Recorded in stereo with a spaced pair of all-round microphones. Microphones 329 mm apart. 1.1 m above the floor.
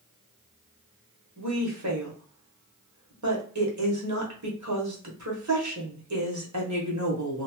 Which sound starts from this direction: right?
A woman speaking, at 1.4 s.